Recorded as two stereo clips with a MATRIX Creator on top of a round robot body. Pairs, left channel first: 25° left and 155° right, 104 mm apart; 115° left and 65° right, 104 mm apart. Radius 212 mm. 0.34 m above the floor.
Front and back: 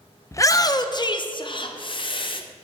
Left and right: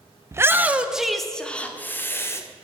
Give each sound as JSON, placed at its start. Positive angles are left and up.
{"t": 0.3, "sound": "a shout", "azimuth_deg": -20, "distance_m": 0.9}